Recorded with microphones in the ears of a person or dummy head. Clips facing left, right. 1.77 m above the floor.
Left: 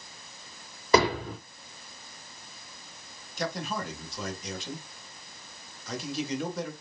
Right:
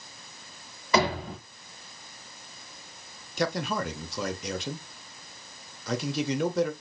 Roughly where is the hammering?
Left.